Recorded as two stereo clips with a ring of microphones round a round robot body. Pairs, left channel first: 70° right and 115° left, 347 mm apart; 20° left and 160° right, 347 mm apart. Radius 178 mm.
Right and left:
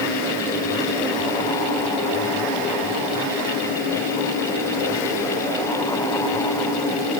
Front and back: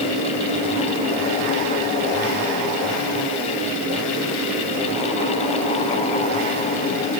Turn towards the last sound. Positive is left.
No sound to turn to.